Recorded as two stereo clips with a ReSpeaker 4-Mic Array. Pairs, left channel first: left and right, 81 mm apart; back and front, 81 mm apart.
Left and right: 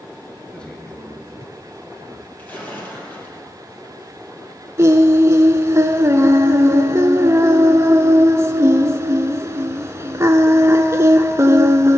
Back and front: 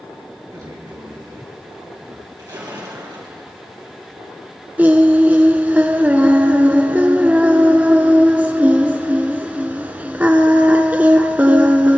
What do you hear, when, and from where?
0.5 s a man speaking: 15° left, 2.5 m; by 2.3 s 20° left, 3.5 m
2.4 s a splash: 25° left, 3.5 m
4.8 s singing: 60° right, 0.7 m